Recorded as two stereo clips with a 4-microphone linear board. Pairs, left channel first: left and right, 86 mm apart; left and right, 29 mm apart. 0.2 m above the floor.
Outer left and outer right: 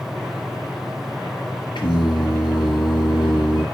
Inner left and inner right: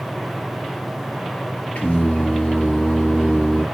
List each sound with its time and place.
1.8 s singing: 65° left (ahead or behind), 4.5 m